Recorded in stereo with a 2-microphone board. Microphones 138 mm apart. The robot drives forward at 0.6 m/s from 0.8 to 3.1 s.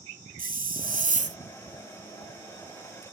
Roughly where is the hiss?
Right.